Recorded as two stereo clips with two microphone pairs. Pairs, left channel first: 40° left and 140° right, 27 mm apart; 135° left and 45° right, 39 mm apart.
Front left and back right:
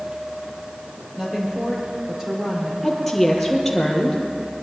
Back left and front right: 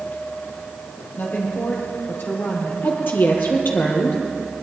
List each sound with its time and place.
1.2 s a woman speaking: 145° left, 4 m
2.8 s a woman speaking: 125° left, 3 m